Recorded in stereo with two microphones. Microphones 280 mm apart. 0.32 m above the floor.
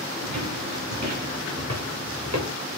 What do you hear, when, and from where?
0.2 s footsteps: 75° right (ahead or behind), 4.5 m; by 2.5 s 65° right (ahead or behind), 3 m